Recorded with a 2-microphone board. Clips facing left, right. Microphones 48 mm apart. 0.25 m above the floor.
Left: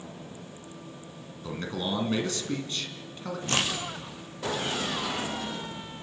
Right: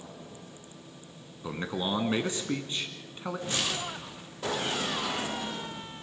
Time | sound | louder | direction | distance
1.4 | a man speaking | even | 15° right (ahead or behind) | 2.5 m
3.5 | a crack | left 5 dB | 75° left (ahead or behind) | 3.5 m